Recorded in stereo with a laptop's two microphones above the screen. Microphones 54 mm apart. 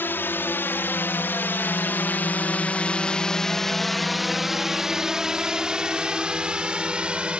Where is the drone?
35° left (ahead or behind); by 7.4 s 15° right (ahead or behind).